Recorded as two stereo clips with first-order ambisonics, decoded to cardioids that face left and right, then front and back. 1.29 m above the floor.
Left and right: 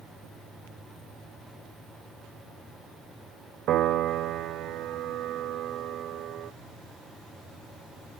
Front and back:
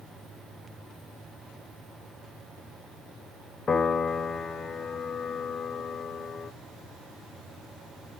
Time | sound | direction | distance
3.7 | a piano | 65° right | 0.7 m